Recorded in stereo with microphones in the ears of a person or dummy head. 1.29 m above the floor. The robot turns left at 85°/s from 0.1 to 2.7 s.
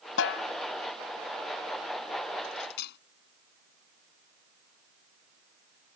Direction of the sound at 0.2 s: 80° left.